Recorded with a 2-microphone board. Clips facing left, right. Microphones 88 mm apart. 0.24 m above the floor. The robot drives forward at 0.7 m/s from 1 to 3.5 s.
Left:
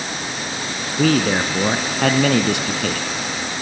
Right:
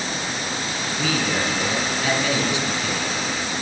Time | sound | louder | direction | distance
1.0 | a man speaking | left 8 dB | 55° left (ahead or behind) | 2.5 m